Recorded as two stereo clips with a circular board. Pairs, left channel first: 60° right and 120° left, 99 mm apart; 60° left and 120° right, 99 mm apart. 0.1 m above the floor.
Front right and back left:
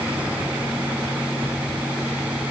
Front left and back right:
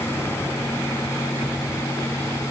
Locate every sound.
Only background noise.